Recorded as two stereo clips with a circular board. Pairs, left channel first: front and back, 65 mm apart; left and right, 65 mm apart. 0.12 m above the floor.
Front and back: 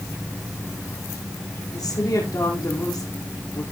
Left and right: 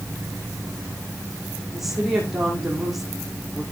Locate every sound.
1.7 s a woman speaking: straight ahead, 6 m